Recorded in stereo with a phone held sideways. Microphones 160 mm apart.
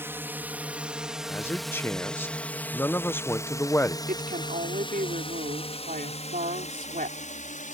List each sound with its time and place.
0.0 s a drone: 15° right (ahead or behind); by 7.8 s 55° left (ahead or behind)
1.3 s a man speaking: 15° left (ahead or behind)
4.1 s a woman speaking: 65° right (ahead or behind)